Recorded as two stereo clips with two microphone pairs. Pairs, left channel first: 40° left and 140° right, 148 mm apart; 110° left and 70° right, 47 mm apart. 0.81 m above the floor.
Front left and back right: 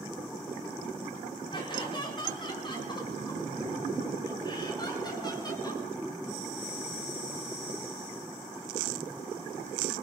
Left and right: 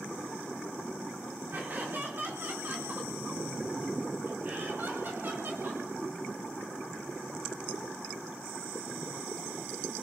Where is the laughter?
20° right, 7 m; by 5.8 s 25° right, 9.5 m.